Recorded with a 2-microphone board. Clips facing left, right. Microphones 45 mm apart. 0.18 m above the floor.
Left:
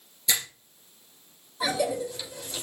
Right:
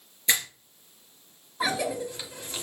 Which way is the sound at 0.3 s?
40° right (ahead or behind).